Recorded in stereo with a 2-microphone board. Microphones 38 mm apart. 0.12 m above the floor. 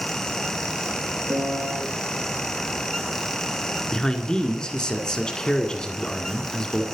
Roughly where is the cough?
No cough in this recording.